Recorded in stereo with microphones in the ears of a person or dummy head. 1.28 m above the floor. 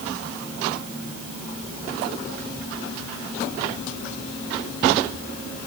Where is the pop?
I don't hear a pop.